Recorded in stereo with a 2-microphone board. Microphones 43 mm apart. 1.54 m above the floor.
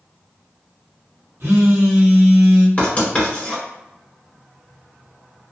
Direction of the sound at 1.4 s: 85° right.